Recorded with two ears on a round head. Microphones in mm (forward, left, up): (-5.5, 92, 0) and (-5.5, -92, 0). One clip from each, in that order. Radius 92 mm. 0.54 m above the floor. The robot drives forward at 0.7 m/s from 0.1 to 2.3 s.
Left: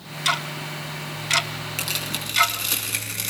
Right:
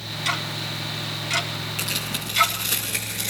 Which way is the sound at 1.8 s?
25° left (ahead or behind).